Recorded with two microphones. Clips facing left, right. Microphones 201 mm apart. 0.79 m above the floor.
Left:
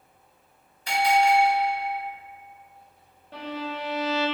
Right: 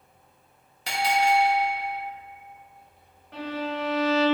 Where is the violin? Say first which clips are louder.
Right 3 dB; 30° left (ahead or behind), 1.1 m.